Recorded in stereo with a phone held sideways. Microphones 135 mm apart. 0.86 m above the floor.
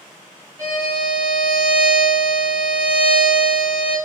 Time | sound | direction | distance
0.6 | a violin | 25° right (ahead or behind) | 1.2 m